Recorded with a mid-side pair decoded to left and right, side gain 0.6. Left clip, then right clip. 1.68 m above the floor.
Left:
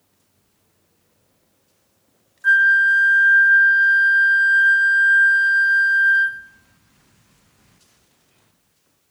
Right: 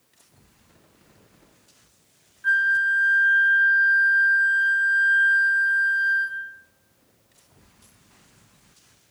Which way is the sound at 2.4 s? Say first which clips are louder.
Left 6 dB; 30° left.